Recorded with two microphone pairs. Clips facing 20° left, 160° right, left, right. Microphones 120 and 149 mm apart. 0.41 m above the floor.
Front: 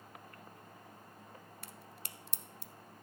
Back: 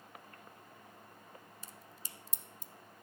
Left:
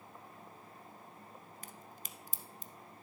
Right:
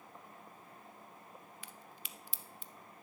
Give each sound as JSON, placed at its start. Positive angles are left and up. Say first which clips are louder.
{"t": 1.6, "sound": "a crack", "louder": "front 2 dB, left 2 dB", "azimuth_deg": 45, "distance_m": 0.8}